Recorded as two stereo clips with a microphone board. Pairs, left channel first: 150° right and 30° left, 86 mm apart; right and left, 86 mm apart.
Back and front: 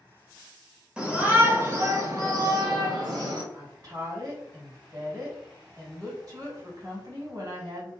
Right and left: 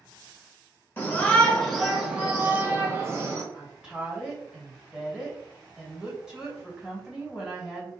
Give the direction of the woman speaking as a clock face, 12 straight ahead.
12 o'clock.